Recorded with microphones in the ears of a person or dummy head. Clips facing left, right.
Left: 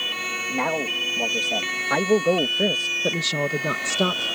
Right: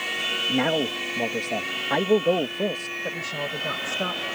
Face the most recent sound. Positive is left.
turn(degrees=50)  # may be behind; listen again after turning